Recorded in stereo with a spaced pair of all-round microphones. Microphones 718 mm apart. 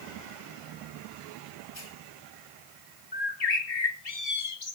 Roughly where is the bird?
Left.